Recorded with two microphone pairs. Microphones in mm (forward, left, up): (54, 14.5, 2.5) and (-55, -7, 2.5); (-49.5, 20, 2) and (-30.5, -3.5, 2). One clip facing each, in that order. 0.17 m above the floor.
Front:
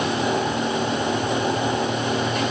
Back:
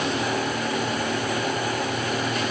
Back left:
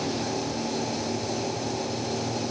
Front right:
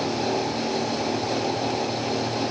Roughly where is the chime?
No chime in this recording.